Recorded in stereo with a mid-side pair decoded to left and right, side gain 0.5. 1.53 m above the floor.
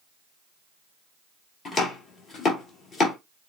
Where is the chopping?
45° left, 3 m.